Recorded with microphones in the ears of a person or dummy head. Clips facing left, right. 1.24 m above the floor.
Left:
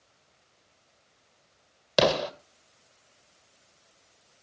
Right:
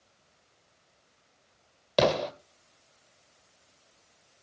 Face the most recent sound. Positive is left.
turn(degrees=5)  # may be behind; listen again after turning